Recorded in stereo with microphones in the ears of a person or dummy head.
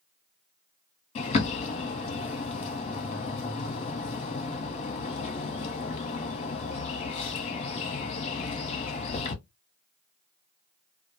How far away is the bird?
About 0.8 m.